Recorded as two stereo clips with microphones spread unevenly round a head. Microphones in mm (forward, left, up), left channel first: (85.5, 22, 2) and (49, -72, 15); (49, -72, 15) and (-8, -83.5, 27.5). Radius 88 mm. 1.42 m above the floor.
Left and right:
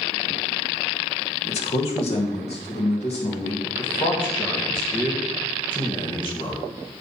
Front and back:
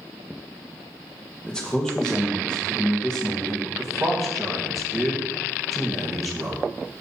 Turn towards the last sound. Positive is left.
turn(degrees=125)